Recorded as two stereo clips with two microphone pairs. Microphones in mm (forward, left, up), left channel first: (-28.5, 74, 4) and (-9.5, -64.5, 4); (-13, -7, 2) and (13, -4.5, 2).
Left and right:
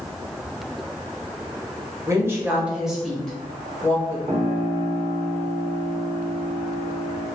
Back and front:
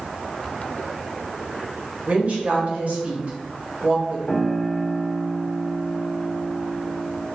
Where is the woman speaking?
20° right, 1.3 m; by 4.2 s 30° left, 1.8 m.